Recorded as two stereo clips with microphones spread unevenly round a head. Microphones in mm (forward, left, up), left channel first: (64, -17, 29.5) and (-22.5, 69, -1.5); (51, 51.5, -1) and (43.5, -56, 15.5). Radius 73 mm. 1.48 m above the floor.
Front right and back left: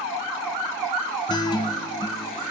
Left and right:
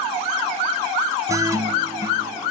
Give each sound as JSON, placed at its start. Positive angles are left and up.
{"t": 1.3, "sound": "a guitar", "azimuth_deg": -60, "distance_m": 0.7}